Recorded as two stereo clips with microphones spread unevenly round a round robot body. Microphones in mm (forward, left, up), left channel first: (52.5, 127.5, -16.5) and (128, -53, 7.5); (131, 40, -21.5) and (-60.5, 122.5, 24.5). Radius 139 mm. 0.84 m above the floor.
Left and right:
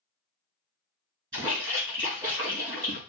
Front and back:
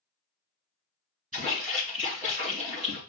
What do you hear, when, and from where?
1.3 s a splash: 145° right, 3 m